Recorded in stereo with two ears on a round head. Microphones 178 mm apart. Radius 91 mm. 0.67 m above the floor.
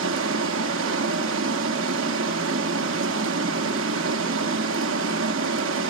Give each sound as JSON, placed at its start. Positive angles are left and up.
{"t": 0.0, "sound": "running water", "side_deg": -65, "distance_m": 0.7}